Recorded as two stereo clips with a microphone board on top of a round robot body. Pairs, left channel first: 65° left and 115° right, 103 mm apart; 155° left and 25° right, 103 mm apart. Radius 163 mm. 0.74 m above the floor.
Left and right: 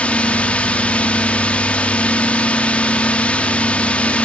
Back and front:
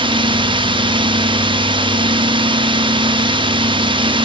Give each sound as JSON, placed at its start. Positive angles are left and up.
{"t": 0.0, "sound": "a drone", "azimuth_deg": -10}